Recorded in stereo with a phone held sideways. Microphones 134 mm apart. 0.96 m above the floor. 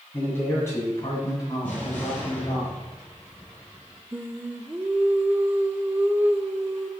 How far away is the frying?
I don't hear frying.